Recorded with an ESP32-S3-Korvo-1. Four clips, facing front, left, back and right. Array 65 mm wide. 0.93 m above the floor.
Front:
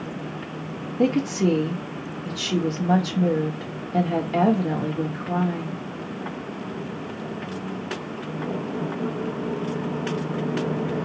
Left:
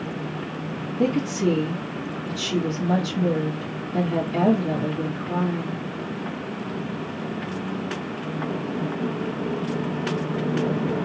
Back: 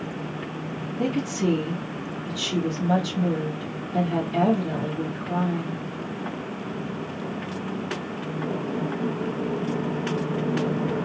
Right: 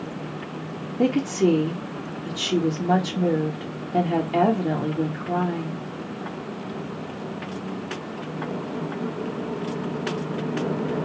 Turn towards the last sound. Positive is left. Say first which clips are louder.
# right 2 dB, front 4 dB
turn(degrees=-50)